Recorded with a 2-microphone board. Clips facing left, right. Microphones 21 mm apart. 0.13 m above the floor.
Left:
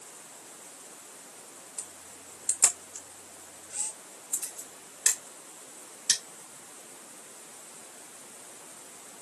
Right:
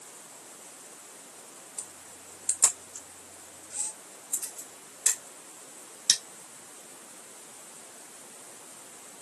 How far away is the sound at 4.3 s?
About 2.5 m.